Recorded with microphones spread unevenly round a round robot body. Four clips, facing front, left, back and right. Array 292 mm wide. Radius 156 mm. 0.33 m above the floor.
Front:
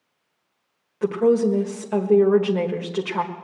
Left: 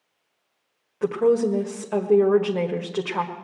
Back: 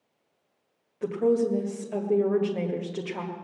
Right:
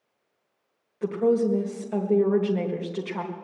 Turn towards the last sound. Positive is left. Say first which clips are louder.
# left 3 dB, front 5 dB
turn(degrees=40)